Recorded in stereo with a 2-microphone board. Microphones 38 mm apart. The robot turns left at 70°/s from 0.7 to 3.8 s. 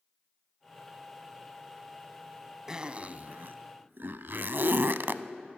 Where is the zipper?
15° right (ahead or behind), 0.7 m; by 5.2 s 65° right (ahead or behind), 0.7 m.